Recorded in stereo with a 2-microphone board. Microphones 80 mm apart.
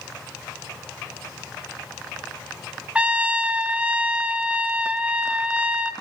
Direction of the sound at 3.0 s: 15° right (ahead or behind).